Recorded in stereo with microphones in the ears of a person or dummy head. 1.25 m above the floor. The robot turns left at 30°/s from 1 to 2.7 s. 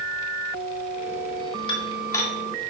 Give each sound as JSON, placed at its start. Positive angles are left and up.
{"t": 1.7, "sound": "dishes clattering", "side_deg": 20, "distance_m": 2.0}